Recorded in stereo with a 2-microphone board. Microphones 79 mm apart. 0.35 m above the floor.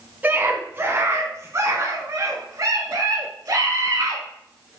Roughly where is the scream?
Right.